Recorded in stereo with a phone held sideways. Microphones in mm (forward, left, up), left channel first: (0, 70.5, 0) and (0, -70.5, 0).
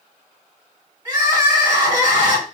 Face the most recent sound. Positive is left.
turn(degrees=-25)  # may be behind; listen again after turning